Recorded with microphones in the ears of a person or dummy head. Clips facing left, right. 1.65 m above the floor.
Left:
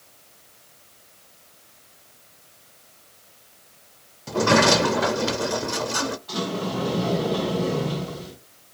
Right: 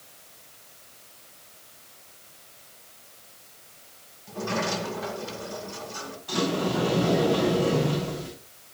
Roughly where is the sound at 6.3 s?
Right.